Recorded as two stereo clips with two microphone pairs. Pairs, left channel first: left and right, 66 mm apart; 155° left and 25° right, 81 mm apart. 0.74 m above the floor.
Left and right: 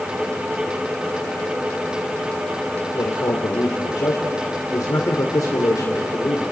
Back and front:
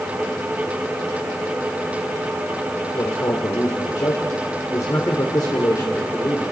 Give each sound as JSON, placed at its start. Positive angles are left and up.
{"t": 2.9, "sound": "a man speaking", "azimuth_deg": 120, "distance_m": 2.0}